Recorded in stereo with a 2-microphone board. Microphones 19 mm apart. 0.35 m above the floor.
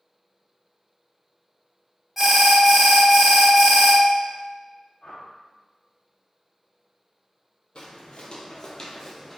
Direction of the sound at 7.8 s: 65° left (ahead or behind).